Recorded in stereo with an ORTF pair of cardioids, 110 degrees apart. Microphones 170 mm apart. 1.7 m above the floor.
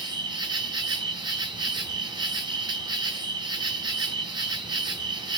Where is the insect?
25° right, 0.9 m.